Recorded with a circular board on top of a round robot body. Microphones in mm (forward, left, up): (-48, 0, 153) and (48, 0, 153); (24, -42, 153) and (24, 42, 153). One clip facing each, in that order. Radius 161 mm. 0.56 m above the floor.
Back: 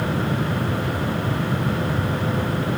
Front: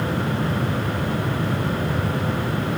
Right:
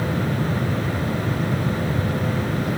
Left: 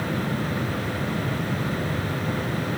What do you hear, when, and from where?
Only background noise.